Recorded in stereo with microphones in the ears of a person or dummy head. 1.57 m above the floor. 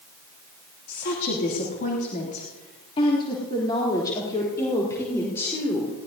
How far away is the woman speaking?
About 3 m.